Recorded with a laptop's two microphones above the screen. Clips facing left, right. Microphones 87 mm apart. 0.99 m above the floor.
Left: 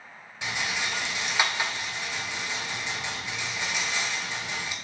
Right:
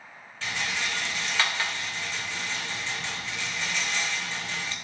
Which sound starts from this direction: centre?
A rattle, at 0.4 s.